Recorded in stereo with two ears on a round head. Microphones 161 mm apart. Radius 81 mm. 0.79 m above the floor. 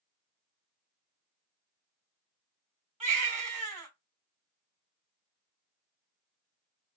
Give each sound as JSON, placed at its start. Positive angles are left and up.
{"t": 3.0, "sound": "a baby crying", "side_deg": -40, "distance_m": 1.9}